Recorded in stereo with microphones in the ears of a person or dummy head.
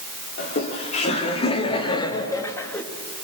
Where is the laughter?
45° left (ahead or behind), 4.5 m; by 2.8 s 10° left (ahead or behind), 2.5 m.